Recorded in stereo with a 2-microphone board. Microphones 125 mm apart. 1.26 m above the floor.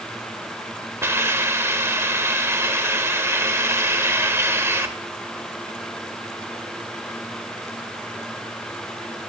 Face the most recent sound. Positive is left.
turn(degrees=-20)  # may be behind; listen again after turning